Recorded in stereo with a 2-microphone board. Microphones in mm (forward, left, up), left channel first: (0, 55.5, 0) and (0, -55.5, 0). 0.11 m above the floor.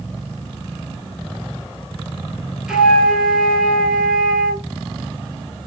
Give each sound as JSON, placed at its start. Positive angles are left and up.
{"t": 2.7, "sound": "a flute", "side_deg": -5, "distance_m": 0.9}